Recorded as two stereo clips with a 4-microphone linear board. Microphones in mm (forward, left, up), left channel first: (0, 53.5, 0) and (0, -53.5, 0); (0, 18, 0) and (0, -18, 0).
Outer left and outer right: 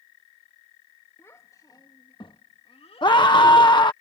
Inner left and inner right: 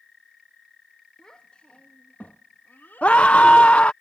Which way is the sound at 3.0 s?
45° left (ahead or behind).